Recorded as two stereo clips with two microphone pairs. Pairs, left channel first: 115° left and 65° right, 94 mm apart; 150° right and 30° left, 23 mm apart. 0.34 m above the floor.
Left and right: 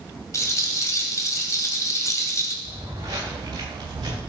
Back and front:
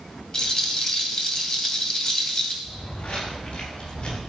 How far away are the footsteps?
About 5 m.